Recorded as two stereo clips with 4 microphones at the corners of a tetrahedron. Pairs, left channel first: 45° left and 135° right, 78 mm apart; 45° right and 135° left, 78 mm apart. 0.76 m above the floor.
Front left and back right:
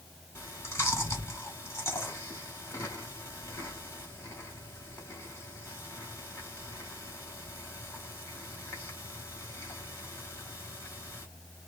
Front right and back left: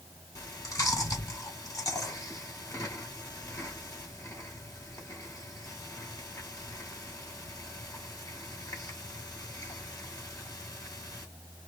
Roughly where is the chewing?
Ahead.